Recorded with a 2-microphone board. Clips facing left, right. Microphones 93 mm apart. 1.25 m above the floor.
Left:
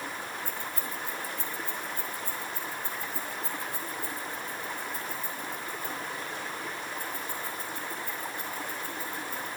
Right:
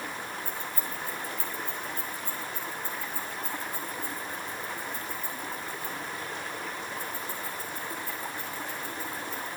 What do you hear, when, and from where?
0.5 s keys jangling: 80° left, 3.5 m; by 9.5 s 45° left (ahead or behind), 8 m